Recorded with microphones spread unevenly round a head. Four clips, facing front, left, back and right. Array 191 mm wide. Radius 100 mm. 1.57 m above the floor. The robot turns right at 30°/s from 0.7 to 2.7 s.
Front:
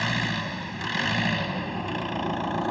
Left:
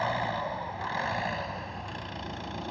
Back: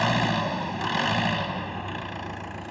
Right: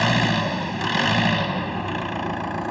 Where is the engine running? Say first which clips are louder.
Right 8 dB, back 5 dB; 95° right; by 2.7 s 35° right.